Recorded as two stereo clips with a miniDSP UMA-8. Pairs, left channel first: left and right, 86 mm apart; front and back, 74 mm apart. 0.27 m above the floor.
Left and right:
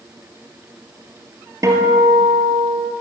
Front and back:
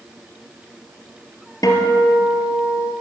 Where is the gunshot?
I don't hear a gunshot.